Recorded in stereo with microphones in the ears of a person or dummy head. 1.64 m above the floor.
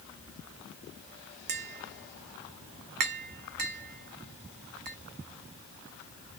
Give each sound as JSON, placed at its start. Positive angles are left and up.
{"t": 1.5, "sound": "tapping", "side_deg": -50, "distance_m": 0.6}